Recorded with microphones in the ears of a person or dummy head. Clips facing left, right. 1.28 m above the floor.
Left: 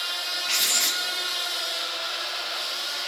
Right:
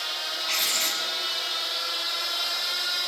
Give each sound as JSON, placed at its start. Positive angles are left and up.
{"t": 0.5, "sound": "writing", "side_deg": 5, "distance_m": 1.8}